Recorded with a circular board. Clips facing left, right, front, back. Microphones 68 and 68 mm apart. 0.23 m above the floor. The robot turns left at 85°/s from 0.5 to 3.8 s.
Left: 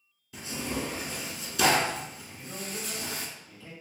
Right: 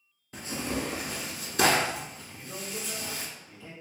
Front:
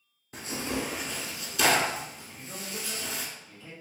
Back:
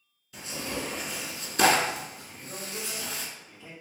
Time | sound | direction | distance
0.3 | tearing paper | 45° right | 0.8 m
2.3 | a man speaking | 40° left | 1.5 m